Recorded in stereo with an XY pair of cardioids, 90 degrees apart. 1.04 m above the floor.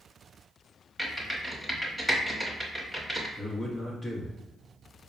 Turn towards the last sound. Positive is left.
turn(degrees=20)